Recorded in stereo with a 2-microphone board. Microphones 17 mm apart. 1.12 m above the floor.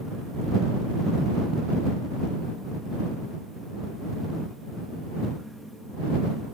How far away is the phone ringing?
I don't hear a phone ringing.